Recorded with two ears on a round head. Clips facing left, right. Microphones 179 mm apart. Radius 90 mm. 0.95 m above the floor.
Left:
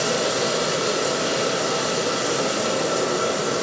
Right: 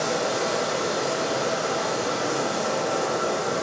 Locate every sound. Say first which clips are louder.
0.0 s running water: left 2 dB; 50° left (ahead or behind), 6 m